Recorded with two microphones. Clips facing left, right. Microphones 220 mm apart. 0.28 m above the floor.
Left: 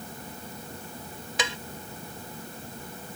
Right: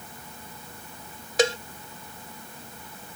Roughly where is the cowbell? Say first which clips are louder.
Right 12 dB; right.